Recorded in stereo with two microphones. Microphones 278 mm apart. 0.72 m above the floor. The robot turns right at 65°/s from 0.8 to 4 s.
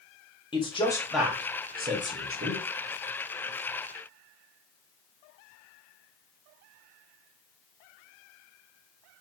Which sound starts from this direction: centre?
A man speaking, at 0.5 s.